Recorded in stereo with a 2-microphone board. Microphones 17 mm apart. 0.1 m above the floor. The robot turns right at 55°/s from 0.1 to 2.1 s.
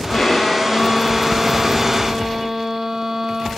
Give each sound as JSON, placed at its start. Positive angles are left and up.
{"t": 0.1, "sound": "a violin", "azimuth_deg": 105, "distance_m": 1.0}